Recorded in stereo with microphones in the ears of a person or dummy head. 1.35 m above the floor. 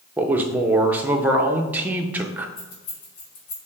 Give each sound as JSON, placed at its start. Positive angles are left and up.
{"t": 0.2, "sound": "a man speaking", "side_deg": -10, "distance_m": 0.6}
{"t": 2.6, "sound": "keys jangling", "side_deg": 70, "distance_m": 1.5}